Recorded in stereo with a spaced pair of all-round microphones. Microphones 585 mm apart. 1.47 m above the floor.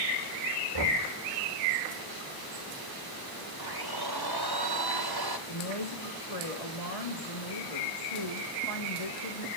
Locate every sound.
0.7 s knocking: 55° right (ahead or behind), 4 m
3.6 s a blender: 40° right (ahead or behind), 1.5 m
5.5 s a woman speaking: 85° left, 3 m